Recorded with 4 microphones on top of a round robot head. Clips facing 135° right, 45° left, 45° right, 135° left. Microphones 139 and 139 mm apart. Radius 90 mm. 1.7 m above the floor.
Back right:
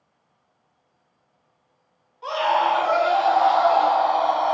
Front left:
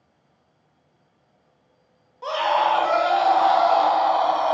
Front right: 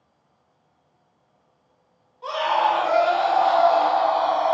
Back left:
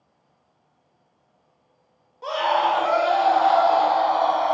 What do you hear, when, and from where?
2.2 s a scream: 85° left, 0.6 m